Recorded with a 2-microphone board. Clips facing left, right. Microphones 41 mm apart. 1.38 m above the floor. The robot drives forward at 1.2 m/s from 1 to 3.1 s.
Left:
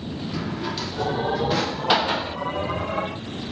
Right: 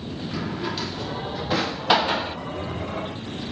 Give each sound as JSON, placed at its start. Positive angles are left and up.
{"t": 0.3, "sound": "a drawer", "side_deg": -5, "distance_m": 2.0}